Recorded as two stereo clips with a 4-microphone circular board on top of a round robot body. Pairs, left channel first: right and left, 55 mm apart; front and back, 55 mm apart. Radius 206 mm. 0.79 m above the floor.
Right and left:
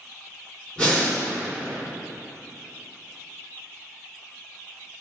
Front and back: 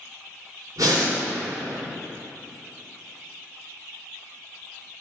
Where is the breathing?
160° right, 2.5 m.